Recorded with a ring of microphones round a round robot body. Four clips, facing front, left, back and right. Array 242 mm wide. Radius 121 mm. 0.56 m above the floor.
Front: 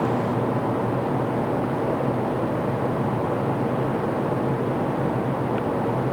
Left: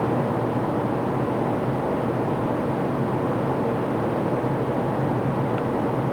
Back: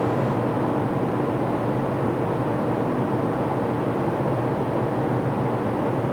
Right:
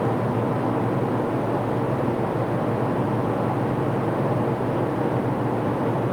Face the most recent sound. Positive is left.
No sound to turn to.